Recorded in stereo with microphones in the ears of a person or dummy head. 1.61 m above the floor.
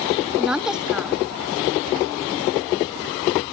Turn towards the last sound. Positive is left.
turn(degrees=0)  # may be behind; listen again after turning